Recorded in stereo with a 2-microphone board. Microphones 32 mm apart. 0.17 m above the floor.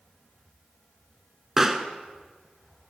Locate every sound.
1.6 s a pop: 15° right (ahead or behind), 0.5 m